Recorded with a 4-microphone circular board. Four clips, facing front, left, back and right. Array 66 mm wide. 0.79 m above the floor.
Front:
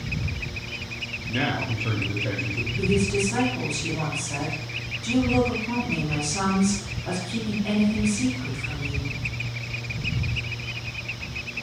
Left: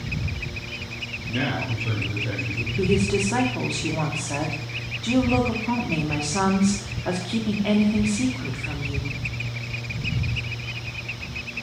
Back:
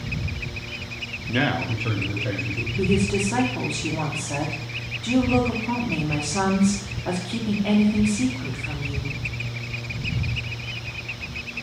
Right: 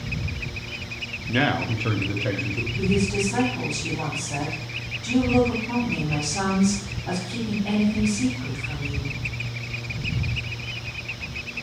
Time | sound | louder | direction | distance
1.3 | a man speaking | right 4 dB, back 3 dB | 130° right | 0.6 m
2.8 | a woman speaking | left 2 dB, back 1 dB | 120° left | 1.6 m